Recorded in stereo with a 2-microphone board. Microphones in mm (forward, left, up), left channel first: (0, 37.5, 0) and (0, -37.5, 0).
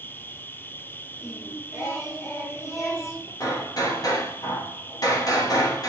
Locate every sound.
0.0 s an insect: 30° left (ahead or behind), 1.1 m
1.2 s singing: 40° left (ahead or behind), 4 m
3.4 s hammering: 55° left (ahead or behind), 4 m